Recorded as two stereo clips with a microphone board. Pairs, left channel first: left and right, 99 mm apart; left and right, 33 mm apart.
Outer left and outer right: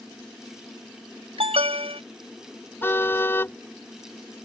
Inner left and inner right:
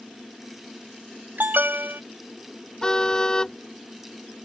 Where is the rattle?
No rattle in this recording.